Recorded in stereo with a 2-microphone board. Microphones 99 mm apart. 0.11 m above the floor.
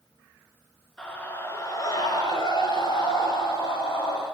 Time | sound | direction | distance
1.0 | a scream | 10° left (ahead or behind) | 1.5 m